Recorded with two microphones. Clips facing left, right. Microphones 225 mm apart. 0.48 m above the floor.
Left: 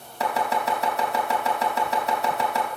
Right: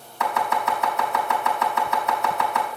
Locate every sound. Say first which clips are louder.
0.2 s chopping: even; 35° left (ahead or behind), 3.5 m